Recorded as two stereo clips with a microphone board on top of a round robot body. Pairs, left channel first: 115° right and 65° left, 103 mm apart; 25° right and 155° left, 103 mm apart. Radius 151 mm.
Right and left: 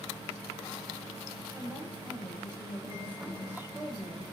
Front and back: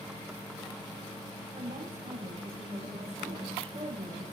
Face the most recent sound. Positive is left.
turn(degrees=140)